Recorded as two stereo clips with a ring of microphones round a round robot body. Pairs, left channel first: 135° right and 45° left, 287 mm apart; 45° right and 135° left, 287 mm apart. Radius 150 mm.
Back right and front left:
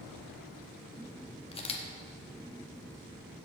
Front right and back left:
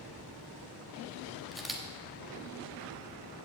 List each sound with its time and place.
1.5 s a camera shutter: 135° right, 1.3 m